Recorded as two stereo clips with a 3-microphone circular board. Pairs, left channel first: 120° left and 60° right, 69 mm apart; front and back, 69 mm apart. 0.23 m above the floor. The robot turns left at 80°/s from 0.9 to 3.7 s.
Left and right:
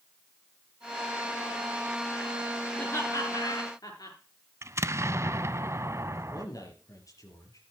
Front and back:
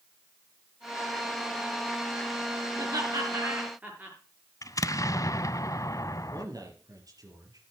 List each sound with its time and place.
2.8 s laughter: 170° right, 5 m; by 4.2 s 115° left, 5 m
4.6 s an explosion: 20° right, 0.5 m
6.3 s a man speaking: 150° left, 4 m